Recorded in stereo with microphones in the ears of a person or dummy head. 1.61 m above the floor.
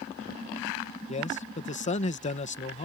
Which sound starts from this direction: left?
A man speaking, at 1.1 s.